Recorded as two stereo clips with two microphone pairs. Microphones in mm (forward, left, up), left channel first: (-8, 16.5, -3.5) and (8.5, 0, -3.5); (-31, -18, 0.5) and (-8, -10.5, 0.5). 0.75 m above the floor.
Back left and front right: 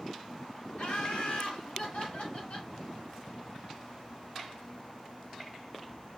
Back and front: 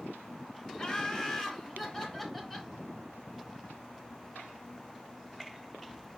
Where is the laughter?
140° left, 2.0 m; by 2.7 s 105° left, 3 m.